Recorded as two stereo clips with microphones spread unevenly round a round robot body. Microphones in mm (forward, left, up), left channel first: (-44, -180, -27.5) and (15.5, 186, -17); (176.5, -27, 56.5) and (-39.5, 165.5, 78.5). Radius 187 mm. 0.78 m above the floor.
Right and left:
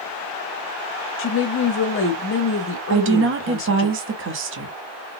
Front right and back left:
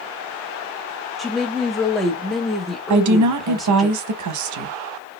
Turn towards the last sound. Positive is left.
turn(degrees=135)